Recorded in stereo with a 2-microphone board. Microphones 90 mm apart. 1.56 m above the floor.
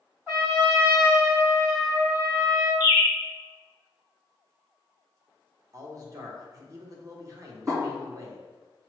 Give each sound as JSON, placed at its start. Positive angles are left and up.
{"t": 0.3, "sound": "a trumpet", "side_deg": -30, "distance_m": 1.5}
{"t": 2.8, "sound": "a bird", "side_deg": -20, "distance_m": 1.3}
{"t": 5.7, "sound": "a man speaking", "side_deg": -35, "distance_m": 0.9}
{"t": 7.7, "sound": "a snare drum", "side_deg": -30, "distance_m": 1.9}